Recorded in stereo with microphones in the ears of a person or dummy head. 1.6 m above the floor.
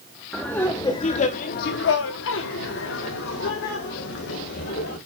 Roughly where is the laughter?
Centre.